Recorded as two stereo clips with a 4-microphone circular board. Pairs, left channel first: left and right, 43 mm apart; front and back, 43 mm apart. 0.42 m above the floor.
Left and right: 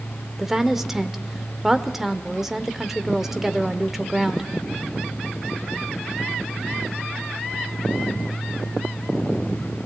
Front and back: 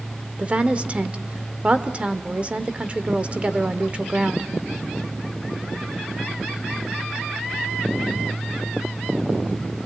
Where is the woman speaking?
160° right, 1.0 m.